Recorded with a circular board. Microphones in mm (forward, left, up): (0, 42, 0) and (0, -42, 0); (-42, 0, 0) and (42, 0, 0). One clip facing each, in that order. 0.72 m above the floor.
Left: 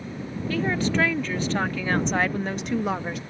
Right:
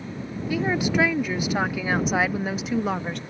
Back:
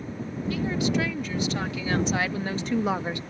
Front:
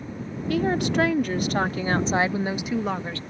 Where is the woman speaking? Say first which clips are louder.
Right 1 dB, front 4 dB; 10° right; by 3.2 s 170° left.